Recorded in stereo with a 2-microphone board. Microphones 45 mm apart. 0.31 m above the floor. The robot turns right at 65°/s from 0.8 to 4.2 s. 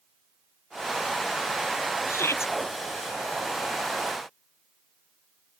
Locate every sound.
2.1 s a shout: 85° left; by 2.5 s 115° left